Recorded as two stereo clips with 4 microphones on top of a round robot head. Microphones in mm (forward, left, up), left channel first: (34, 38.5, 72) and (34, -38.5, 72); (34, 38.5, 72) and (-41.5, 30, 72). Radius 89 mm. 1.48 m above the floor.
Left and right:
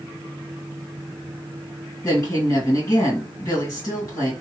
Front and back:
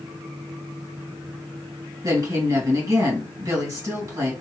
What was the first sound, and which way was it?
A woman speaking, 140° left.